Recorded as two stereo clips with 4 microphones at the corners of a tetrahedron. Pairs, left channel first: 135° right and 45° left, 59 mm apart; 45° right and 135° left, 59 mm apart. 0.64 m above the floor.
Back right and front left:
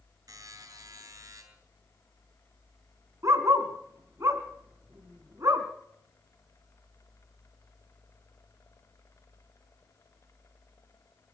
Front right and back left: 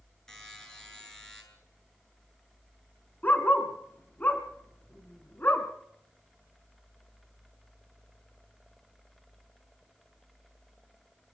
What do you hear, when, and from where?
0.3 s a buzzer: 40° left, 7.5 m
3.2 s a dog barking: 15° left, 3 m